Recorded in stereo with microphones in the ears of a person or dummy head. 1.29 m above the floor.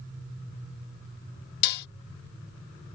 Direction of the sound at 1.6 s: 60° left (ahead or behind).